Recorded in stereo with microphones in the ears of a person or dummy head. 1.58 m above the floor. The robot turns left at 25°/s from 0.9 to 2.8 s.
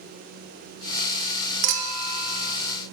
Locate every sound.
1.6 s a clink: 45° right (ahead or behind), 1.0 m; by 2.6 s 25° right (ahead or behind), 1.0 m